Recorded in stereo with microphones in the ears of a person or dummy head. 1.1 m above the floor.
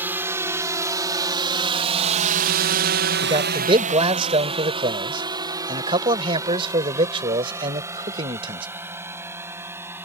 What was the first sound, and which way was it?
A drone, 10° right (ahead or behind).